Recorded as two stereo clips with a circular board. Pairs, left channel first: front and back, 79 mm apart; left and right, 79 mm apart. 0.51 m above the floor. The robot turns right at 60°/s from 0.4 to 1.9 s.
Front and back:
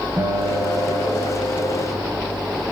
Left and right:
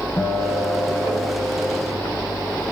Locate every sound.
0.2 s a guitar: 135° left, 1.9 m; by 2.6 s 135° right, 1.9 m